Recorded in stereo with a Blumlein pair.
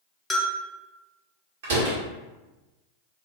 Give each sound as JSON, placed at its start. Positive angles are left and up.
{"t": 0.3, "sound": "a bell", "azimuth_deg": 5, "distance_m": 1.0}
{"t": 1.6, "sound": "a door slam", "azimuth_deg": -50, "distance_m": 1.8}